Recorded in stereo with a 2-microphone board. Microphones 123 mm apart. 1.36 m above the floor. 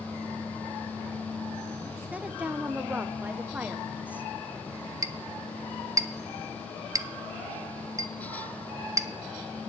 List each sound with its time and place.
2.1 s a woman speaking: 10° right (ahead or behind), 0.8 m
5.0 s a clink: 25° right (ahead or behind), 0.5 m